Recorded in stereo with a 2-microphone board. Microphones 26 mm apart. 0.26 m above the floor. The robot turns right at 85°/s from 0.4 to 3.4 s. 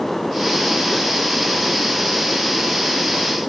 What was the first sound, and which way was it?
Only background noise.